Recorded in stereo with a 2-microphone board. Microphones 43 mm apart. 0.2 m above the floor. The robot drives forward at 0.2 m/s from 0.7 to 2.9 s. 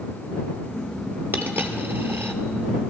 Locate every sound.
1.3 s a dropped coin: 50° right (ahead or behind), 1.1 m; by 2.4 s 60° right (ahead or behind), 1.0 m